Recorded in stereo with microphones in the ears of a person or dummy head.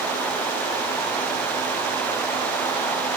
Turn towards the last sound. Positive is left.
No sound to turn to.